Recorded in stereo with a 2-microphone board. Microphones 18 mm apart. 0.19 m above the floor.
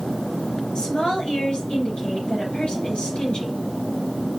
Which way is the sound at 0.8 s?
65° left (ahead or behind).